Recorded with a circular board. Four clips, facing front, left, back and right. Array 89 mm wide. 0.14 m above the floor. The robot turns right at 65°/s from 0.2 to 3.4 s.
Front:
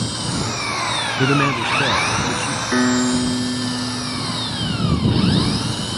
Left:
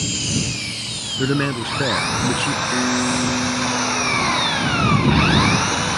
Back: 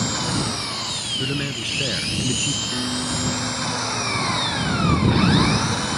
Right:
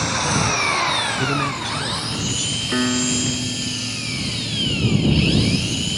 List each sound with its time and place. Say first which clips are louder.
0.0 s an engine running: right 5 dB, even; 100° right; by 6.0 s 110° left
1.2 s a man speaking: left 2 dB, front 10 dB; 20° left; by 2.6 s 115° left
2.7 s a piano: right 1 dB, front 12 dB; 15° right; by 4.8 s 30° left